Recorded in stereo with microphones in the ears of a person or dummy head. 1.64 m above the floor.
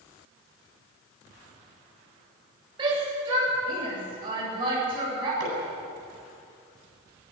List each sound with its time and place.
2.8 s a shout: 25° right (ahead or behind), 8 m
5.4 s hammering: 85° right, 9 m